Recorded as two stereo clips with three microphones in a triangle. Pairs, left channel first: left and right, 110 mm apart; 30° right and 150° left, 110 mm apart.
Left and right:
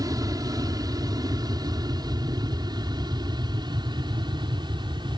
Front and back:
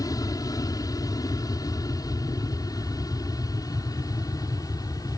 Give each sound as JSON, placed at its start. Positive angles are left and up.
{"t": 0.0, "sound": "an aircraft", "azimuth_deg": -60}